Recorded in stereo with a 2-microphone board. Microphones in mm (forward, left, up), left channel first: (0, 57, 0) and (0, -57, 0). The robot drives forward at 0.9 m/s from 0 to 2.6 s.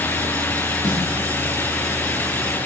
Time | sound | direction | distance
0.8 | a snare drum | 45° right (ahead or behind) | 4 m